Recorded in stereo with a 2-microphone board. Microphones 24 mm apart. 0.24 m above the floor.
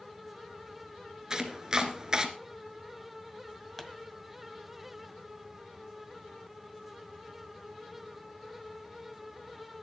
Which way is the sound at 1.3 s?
25° right (ahead or behind).